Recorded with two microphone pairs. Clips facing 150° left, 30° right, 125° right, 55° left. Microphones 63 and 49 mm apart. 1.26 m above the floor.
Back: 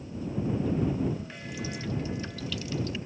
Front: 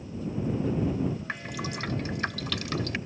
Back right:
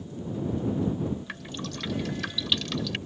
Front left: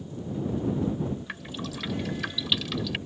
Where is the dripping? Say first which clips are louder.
Front 3 dB, front left 1 dB; 30° right.